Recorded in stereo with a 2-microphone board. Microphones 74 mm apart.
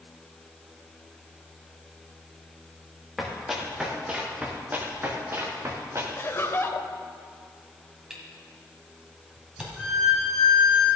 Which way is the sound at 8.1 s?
10° right (ahead or behind).